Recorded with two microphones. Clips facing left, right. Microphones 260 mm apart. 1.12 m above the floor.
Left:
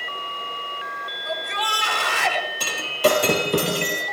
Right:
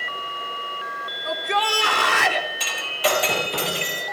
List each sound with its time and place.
1.2 s a shout: 75° right (ahead or behind), 4 m
2.6 s breaking glass: 50° left (ahead or behind), 4 m